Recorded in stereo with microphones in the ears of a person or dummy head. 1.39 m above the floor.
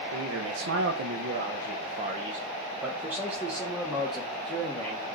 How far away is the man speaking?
About 1.1 m.